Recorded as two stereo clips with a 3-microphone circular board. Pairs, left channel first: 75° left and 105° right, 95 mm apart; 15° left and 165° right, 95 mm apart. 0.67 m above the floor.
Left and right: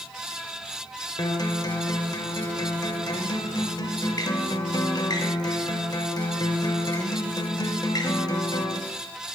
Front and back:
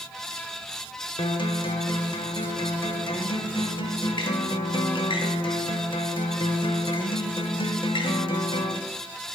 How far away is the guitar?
About 0.6 m.